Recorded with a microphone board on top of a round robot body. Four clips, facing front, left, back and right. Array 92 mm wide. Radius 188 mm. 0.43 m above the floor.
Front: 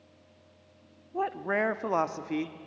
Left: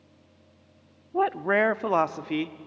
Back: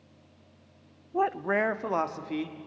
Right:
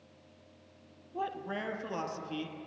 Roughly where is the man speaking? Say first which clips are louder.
Left 13 dB, back 3 dB; behind left.